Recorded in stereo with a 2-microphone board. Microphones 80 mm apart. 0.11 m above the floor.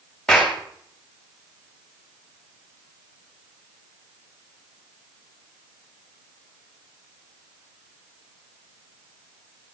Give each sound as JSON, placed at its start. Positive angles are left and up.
{"t": 0.3, "sound": "a clap", "side_deg": 5, "distance_m": 7.5}